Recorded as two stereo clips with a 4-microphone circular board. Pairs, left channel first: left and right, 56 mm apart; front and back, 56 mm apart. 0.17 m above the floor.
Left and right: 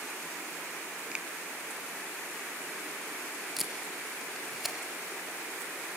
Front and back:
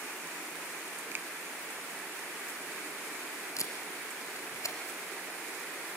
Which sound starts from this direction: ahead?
Tape being pulled, at 3.6 s.